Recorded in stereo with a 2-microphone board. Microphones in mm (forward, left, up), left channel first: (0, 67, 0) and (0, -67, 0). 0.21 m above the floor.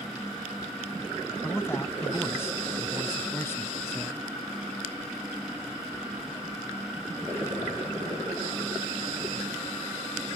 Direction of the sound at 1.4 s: 20° left (ahead or behind).